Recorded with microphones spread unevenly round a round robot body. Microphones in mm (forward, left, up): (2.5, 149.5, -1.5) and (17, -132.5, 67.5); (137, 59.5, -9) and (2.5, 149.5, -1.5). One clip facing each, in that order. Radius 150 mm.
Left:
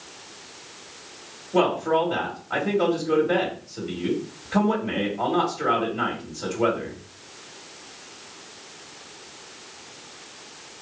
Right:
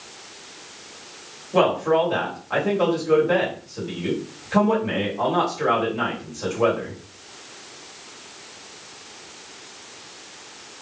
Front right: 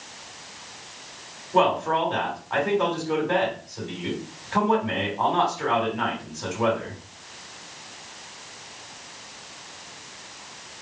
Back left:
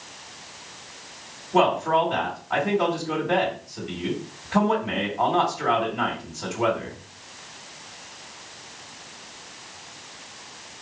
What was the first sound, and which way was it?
A man speaking, 175° right.